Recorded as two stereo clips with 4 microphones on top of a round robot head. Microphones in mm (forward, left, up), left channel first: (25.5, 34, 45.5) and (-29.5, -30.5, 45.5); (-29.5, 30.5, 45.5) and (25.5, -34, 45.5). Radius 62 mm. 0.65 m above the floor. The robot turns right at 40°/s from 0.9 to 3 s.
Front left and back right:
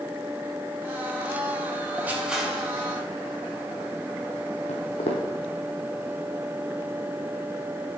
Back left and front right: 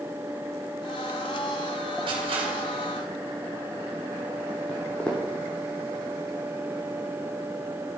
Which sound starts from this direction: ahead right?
Crushing, at 2.1 s.